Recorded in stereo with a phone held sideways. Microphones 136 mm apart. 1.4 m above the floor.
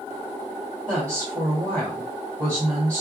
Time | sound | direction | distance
0.9 | a woman speaking | 25° right (ahead or behind) | 2.5 m